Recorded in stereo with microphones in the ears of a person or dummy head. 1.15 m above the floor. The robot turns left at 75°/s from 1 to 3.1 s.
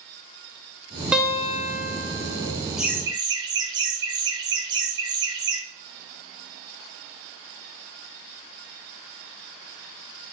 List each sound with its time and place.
1.1 s a guitar: 175° right, 0.5 m; by 2.5 s 85° left, 0.5 m
2.8 s laughter: centre (ahead or behind), 0.7 m; by 5.6 s 20° right (ahead or behind), 0.7 m